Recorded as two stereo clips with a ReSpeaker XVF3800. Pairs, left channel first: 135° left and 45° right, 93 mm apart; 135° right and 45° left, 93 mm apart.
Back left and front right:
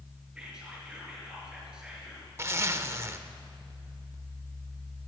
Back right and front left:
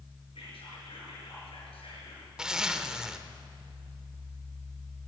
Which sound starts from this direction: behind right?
Whispering, at 0.3 s.